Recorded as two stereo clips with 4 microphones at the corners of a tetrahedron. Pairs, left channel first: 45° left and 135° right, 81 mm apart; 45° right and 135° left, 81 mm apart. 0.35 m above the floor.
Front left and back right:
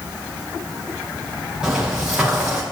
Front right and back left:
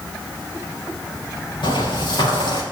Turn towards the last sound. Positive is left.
turn(degrees=-55)